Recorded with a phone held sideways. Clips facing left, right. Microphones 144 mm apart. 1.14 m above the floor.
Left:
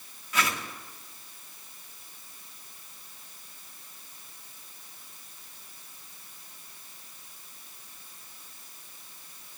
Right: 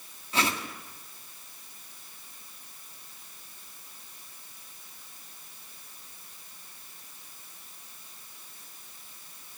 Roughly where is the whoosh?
Right.